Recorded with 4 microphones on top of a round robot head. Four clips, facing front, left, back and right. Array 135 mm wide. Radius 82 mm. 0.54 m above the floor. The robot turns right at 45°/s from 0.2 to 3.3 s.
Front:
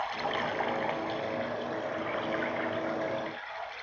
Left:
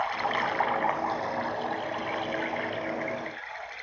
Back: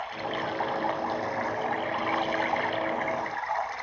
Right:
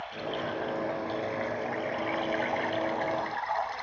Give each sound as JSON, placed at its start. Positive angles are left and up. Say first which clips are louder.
{"t": 0.0, "sound": "running water", "louder": "left 6 dB, even", "azimuth_deg": 80, "distance_m": 0.8}